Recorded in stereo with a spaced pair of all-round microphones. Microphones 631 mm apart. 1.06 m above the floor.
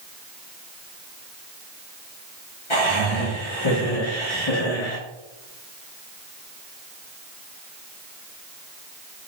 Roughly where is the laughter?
Left.